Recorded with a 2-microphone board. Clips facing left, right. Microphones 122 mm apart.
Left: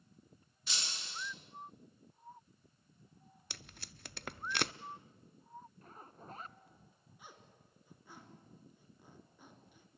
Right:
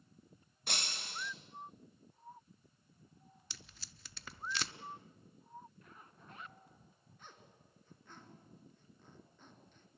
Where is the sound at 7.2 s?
10° left (ahead or behind), 2.5 m.